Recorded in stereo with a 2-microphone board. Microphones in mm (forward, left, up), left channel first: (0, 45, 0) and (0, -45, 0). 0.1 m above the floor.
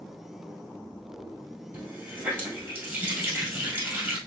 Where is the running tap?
25° right (ahead or behind), 1.9 m.